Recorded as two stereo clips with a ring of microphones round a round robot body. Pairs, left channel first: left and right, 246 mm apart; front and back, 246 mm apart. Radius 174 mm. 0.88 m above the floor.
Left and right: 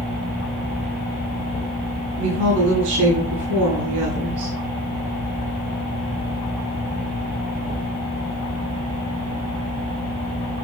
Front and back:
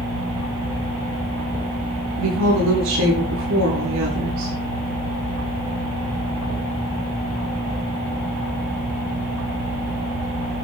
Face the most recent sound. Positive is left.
turn(degrees=-130)